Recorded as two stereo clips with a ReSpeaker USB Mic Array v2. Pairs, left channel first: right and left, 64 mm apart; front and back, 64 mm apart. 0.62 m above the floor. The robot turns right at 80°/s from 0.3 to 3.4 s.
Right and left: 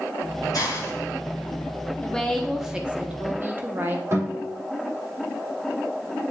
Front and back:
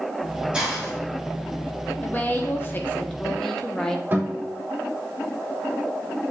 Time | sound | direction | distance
0.5 | a hiss | 105° right | 3 m
2.0 | a woman speaking | 35° right | 1.1 m
4.1 | a guitar | 125° left | 3 m